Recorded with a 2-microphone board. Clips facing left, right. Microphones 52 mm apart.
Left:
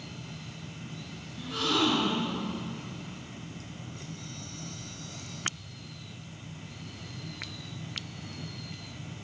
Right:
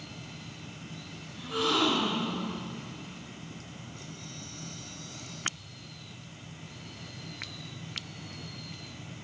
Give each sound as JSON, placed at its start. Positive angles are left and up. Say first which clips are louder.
{"t": 1.4, "sound": "a gasp", "louder": "right 1 dB", "side_deg": -20, "distance_m": 4.5}